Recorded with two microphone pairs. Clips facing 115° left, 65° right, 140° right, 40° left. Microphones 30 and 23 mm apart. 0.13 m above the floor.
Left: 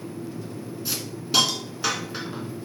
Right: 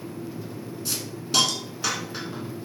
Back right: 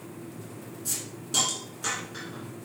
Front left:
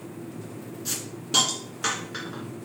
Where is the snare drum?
I don't hear a snare drum.